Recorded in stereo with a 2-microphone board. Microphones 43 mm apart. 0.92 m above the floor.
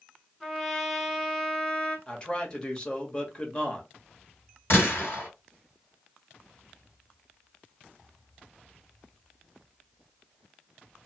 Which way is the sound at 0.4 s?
10° left (ahead or behind).